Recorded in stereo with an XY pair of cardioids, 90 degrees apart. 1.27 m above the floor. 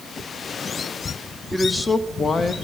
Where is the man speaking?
Straight ahead, 0.7 m; by 2.5 s 45° left, 0.9 m.